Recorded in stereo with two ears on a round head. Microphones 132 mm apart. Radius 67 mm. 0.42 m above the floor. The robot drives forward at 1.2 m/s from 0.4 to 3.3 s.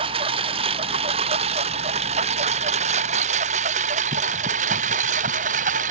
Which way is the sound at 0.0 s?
35° right (ahead or behind).